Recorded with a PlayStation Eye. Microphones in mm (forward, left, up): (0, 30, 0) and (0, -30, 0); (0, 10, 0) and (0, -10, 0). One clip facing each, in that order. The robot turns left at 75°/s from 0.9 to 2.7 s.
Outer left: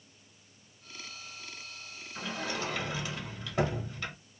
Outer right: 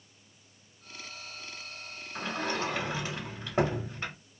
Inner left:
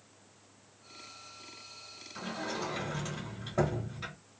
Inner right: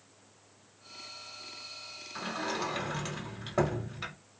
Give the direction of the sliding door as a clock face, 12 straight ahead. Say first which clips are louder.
Outer right 3 dB, inner right 3 dB; 3 o'clock.